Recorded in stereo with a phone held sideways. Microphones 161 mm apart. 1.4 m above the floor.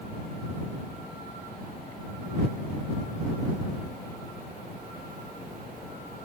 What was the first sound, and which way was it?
Only background noise.